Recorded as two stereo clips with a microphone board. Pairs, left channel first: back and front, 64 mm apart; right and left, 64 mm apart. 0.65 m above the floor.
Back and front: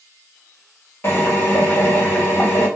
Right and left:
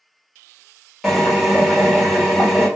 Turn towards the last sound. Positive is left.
turn(degrees=175)